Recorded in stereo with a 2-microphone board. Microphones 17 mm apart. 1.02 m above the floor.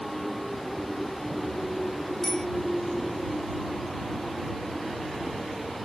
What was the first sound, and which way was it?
A bicycle bell, 35° left (ahead or behind).